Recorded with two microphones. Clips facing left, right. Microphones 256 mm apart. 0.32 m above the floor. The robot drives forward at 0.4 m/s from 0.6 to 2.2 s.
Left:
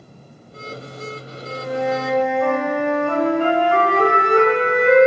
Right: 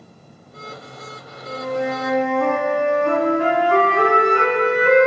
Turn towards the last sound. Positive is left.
turn(degrees=-70)  # may be behind; listen again after turning